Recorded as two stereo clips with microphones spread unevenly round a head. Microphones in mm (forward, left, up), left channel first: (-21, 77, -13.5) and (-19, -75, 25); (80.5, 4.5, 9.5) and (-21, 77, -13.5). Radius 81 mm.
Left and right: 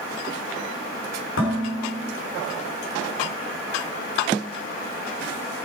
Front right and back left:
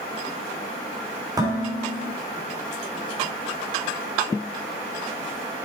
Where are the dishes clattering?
80° left, 3 m.